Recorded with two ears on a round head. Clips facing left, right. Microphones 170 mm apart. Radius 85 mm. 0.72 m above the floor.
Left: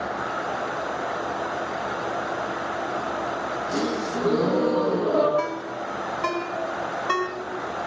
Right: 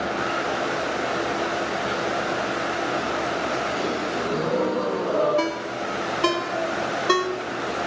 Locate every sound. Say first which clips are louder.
3.7 s a gasp: even; 60° left (ahead or behind), 9.5 m
5.4 s a ringtone: right 2 dB; 45° right (ahead or behind), 2.5 m